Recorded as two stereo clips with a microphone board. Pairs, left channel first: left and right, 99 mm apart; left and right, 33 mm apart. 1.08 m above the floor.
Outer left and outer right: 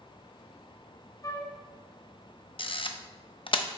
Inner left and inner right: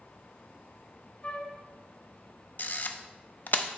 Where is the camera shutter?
55° left (ahead or behind), 0.6 m.